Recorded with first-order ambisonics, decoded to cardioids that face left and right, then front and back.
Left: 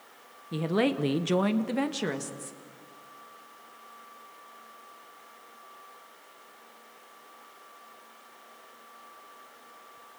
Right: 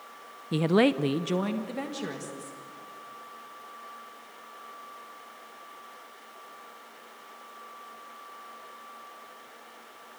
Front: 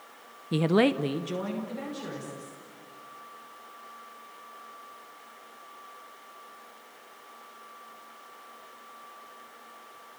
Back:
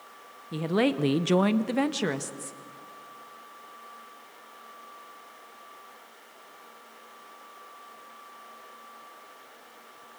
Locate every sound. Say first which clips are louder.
0.5 s a woman speaking: right 4 dB, front 2 dB; 40° right, 0.8 m; by 2.6 s 155° left, 2 m